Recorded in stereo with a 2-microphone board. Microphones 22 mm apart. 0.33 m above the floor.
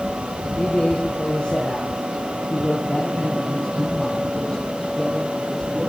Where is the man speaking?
40° left (ahead or behind), 5.5 m; by 5.9 s 20° left (ahead or behind), 10 m.